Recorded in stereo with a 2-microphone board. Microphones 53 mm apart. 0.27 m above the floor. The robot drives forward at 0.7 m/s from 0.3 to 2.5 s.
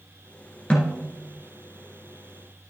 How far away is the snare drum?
About 2.5 m.